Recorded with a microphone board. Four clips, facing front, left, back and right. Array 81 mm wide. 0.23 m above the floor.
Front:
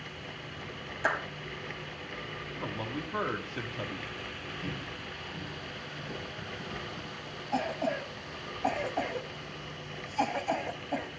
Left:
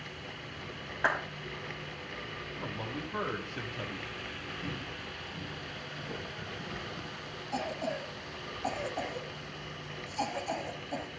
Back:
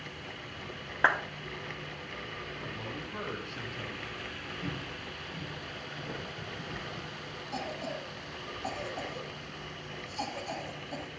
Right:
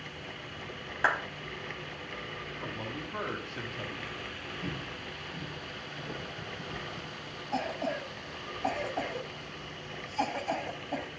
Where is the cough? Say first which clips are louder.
Right 2 dB, front 7 dB; 25° right, 1.1 m.